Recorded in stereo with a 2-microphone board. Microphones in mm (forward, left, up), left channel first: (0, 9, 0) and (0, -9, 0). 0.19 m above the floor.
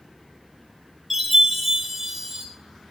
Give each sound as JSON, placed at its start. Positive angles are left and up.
{"t": 1.1, "sound": "a chime", "side_deg": -10, "distance_m": 3.5}